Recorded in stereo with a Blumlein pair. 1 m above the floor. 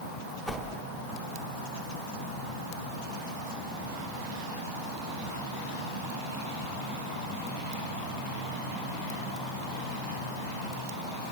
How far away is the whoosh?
About 2.5 m.